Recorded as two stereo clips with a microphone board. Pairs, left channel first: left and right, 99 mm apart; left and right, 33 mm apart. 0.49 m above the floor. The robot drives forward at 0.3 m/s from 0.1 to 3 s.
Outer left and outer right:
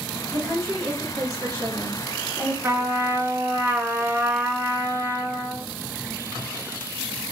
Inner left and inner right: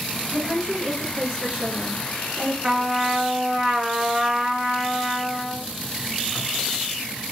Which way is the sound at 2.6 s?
25° right (ahead or behind).